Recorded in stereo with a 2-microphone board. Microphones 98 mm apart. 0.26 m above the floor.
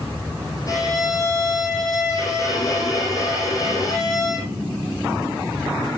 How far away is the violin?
About 8 m.